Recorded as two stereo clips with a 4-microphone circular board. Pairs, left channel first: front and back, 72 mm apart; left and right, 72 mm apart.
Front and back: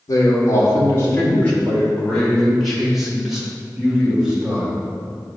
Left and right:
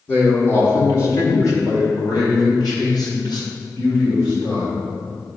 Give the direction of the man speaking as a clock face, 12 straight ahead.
11 o'clock.